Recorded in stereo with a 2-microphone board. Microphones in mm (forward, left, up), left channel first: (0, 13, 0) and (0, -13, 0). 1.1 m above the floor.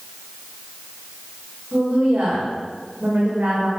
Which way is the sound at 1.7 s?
65° right (ahead or behind).